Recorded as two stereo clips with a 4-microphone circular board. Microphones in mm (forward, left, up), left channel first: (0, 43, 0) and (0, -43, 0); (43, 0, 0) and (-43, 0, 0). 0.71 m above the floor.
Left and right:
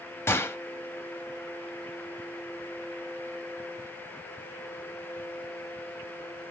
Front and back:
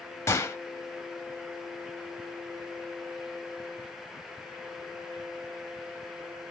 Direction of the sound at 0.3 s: 40° left.